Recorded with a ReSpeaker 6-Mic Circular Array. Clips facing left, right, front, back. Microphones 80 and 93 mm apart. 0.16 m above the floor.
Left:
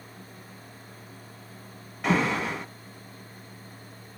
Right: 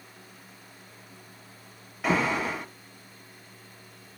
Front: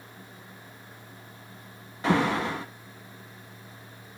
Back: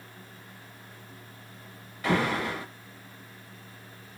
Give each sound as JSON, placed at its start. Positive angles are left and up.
{"t": 2.0, "sound": "an alarm", "azimuth_deg": -5, "distance_m": 0.7}